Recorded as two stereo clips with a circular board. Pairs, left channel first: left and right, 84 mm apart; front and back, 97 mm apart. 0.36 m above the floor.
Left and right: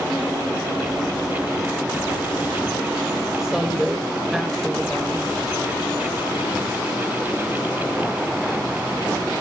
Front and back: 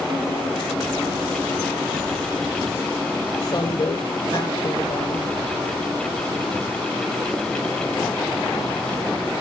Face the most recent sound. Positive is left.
turn(degrees=-5)